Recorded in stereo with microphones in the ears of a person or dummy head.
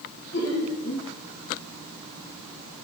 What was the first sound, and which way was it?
Laughter, 65° left (ahead or behind).